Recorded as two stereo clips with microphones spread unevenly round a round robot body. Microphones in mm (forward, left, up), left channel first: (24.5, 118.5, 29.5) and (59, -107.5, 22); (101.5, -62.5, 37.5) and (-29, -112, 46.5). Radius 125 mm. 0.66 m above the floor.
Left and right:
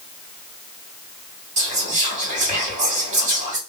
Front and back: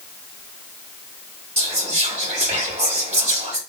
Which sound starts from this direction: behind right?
Whispering, at 1.6 s.